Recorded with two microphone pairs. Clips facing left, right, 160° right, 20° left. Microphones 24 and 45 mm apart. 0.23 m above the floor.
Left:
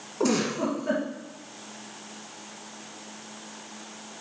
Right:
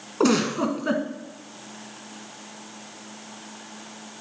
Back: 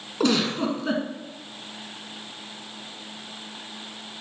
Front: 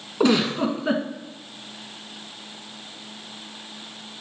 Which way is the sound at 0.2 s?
55° right.